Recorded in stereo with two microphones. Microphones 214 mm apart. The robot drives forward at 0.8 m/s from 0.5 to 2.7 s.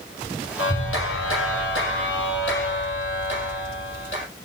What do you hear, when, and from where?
0.6 s a clap: 80° left, 5 m; by 4.3 s 60° left (ahead or behind), 5.5 m